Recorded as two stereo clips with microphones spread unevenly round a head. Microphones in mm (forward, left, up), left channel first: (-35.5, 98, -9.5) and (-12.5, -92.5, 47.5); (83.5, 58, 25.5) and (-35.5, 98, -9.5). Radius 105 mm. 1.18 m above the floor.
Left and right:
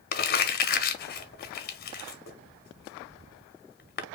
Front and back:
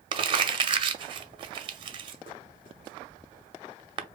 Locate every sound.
0.1 s crumpling: 120° left, 0.8 m